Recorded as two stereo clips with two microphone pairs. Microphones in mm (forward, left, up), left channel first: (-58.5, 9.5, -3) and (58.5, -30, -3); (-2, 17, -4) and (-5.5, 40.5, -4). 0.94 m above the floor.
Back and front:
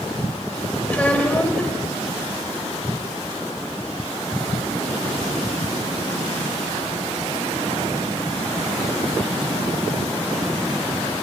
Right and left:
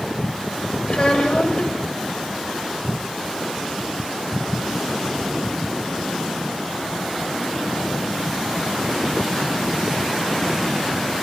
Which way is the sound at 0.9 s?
120° right.